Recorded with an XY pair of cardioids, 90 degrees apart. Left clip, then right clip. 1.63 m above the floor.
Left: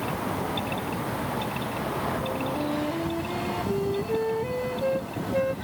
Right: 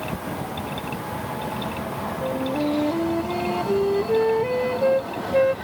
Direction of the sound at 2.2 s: 50° right.